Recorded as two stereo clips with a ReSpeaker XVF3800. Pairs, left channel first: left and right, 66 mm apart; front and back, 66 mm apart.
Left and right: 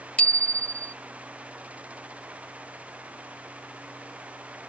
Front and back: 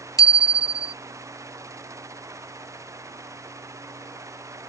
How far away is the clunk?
No clunk in this recording.